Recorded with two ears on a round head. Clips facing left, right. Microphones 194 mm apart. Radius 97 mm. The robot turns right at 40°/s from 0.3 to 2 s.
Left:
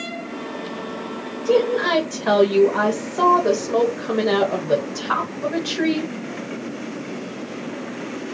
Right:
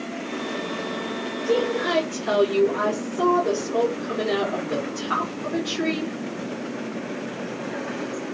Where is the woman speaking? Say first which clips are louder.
Left 5 dB; 70° left (ahead or behind), 1.3 m; by 6.1 s 85° left, 1.3 m.